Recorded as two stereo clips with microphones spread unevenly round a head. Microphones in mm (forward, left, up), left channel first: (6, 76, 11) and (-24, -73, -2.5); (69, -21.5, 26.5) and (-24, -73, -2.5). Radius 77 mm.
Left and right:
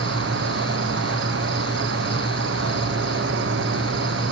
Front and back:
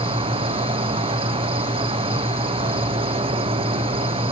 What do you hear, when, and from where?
0.0 s an insect: 110° right, 1.0 m